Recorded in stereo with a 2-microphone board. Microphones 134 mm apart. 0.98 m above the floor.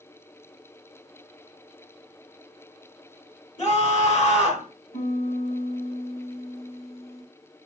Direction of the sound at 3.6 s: 60° left (ahead or behind).